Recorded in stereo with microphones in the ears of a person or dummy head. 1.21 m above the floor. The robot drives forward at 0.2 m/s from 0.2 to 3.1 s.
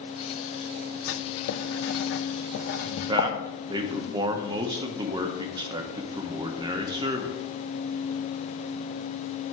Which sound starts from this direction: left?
Writing, at 1.1 s.